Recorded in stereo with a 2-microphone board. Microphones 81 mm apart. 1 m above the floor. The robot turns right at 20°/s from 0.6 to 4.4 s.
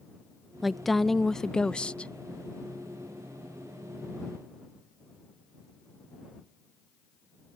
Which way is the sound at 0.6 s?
5° right.